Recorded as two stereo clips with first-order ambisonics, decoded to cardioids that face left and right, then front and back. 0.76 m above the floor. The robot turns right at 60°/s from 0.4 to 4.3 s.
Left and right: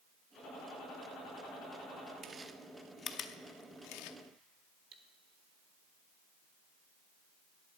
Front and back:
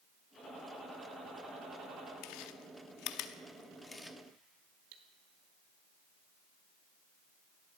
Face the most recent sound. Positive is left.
turn(degrees=-150)